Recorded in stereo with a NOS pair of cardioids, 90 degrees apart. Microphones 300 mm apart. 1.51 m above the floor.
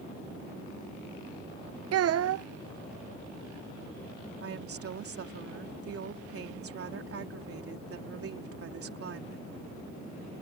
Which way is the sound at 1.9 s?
55° right.